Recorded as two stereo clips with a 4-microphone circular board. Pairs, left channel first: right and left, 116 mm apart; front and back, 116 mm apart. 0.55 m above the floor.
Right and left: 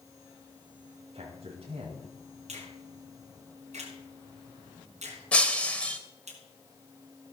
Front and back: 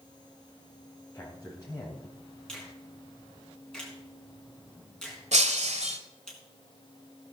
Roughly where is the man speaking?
Ahead left.